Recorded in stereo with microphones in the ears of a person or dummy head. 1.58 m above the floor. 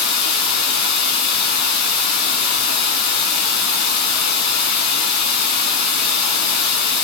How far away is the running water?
About 1.4 m.